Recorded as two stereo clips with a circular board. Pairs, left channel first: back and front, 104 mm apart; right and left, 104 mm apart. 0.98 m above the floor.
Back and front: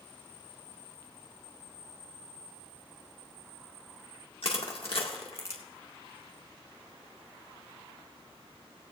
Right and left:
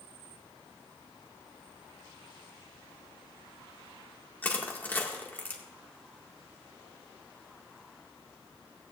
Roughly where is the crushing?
Behind.